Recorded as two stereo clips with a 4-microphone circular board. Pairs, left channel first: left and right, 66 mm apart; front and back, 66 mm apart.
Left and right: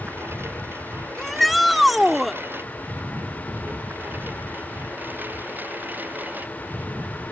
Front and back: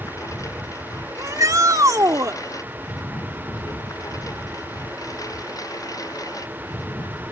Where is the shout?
Straight behind.